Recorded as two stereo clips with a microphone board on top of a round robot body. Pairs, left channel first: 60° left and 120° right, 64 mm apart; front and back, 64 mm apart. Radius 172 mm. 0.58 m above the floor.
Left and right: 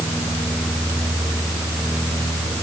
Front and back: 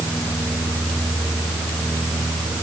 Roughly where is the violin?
No violin in this recording.